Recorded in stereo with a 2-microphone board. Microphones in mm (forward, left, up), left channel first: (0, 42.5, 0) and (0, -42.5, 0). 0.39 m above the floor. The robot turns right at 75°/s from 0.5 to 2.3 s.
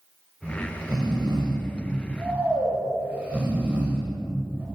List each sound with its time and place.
0.4 s snoring: 20° right (ahead or behind), 1.3 m